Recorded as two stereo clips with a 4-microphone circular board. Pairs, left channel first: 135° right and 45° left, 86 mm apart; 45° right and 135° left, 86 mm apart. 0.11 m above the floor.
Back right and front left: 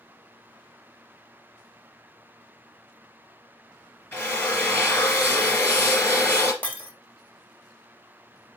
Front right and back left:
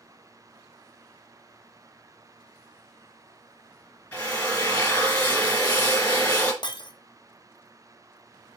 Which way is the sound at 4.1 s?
95° right.